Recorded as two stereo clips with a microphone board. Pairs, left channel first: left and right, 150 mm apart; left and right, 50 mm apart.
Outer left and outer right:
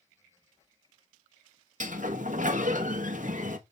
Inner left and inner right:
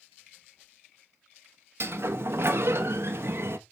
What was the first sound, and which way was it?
A sliding door, 60° right (ahead or behind).